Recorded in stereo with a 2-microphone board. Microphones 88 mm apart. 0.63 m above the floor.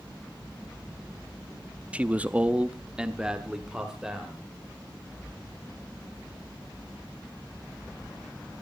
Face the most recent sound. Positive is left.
turn(degrees=-5)  # may be behind; listen again after turning